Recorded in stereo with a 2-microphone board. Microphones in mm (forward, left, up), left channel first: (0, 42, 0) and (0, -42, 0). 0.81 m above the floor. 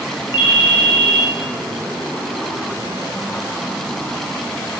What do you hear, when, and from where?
0.3 s a ringtone: 80° left, 2.0 m